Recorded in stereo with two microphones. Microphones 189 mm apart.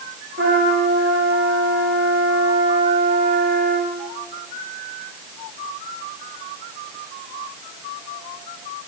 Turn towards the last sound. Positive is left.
turn(degrees=-85)